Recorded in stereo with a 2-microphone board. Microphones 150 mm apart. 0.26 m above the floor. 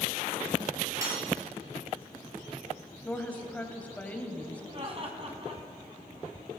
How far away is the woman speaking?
About 1.3 m.